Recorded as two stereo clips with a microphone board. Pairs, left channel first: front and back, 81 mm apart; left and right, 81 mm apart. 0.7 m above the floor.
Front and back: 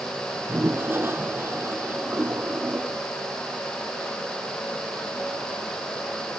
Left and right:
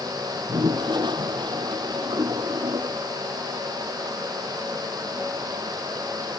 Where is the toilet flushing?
115° right.